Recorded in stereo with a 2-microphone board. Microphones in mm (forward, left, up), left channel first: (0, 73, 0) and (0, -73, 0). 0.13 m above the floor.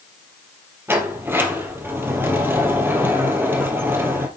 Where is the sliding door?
15° right (ahead or behind), 1.9 m.